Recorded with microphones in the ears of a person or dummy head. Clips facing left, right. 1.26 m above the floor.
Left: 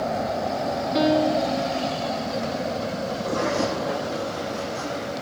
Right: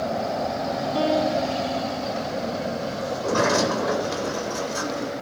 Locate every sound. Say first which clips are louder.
0.9 s a piano: left 2 dB; 25° left (ahead or behind), 3 m
3.1 s a sliding door: right 4 dB; 75° right (ahead or behind), 3 m